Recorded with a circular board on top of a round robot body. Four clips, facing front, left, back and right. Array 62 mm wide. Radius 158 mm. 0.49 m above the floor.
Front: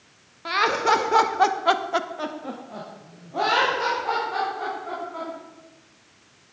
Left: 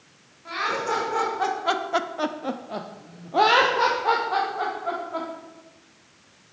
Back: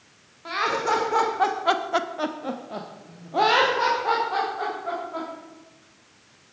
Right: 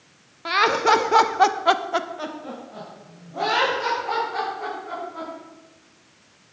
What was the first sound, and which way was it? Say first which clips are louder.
Laughter: right 8 dB, front 3 dB; 70° right.